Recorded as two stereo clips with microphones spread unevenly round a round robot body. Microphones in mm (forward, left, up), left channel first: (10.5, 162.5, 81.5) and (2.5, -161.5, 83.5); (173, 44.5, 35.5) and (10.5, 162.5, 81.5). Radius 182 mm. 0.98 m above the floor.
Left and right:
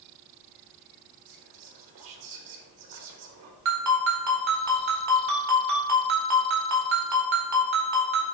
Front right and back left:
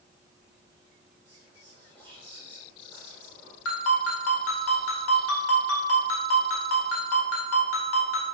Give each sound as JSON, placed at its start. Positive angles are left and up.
{"t": 1.3, "sound": "whispering", "azimuth_deg": -115, "distance_m": 1.2}
{"t": 3.6, "sound": "a ringtone", "azimuth_deg": -50, "distance_m": 1.7}